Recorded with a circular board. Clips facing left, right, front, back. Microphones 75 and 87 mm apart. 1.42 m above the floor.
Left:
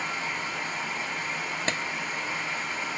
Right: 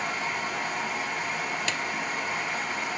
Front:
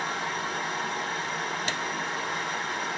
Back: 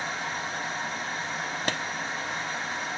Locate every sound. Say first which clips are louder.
0.0 s running water: right 2 dB, front 2 dB; 10° right, 1.7 m
1.7 s a clap: left 1 dB, back 2 dB; 140° left, 0.6 m